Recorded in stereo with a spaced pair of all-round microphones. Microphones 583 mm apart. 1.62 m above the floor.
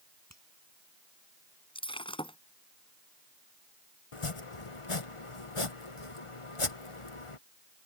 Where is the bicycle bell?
I don't hear a bicycle bell.